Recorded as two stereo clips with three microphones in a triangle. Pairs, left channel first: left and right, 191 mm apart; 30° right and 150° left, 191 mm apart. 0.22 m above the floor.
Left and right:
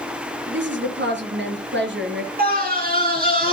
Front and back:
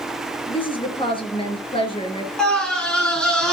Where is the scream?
115° right, 3 m.